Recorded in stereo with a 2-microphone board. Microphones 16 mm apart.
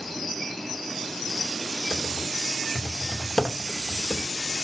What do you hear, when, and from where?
1.9 s typing on a keyboard: 60° left (ahead or behind), 2 m